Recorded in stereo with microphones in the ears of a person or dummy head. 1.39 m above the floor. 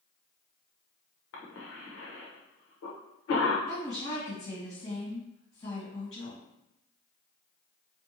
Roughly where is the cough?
Left.